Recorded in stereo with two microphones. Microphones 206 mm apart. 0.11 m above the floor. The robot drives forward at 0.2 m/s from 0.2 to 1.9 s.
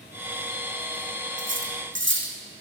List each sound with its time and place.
1.4 s cutlery clinking: 70° right (ahead or behind), 4 m